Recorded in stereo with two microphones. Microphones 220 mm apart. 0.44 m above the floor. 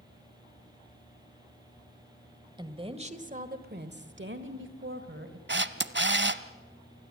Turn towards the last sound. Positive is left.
turn(degrees=-55)  # may be behind; listen again after turning